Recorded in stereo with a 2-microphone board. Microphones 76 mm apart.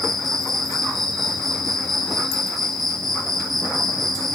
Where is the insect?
5° left (ahead or behind), 5 m.